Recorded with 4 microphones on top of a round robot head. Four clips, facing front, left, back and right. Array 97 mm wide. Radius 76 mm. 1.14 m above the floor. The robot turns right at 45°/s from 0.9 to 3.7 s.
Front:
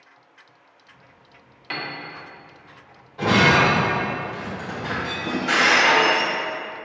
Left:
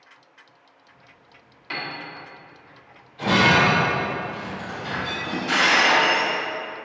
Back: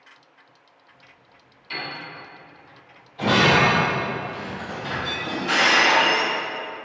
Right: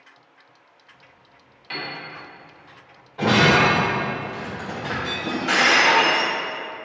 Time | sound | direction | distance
1.7 | a piano | 10° left | 1.7 m
3.2 | breaking glass | 65° right | 2 m